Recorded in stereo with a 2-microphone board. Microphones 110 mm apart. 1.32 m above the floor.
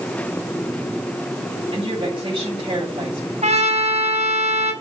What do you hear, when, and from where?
1.7 s a woman speaking: 45° right (ahead or behind), 7 m
3.4 s a trumpet: 75° right (ahead or behind), 4 m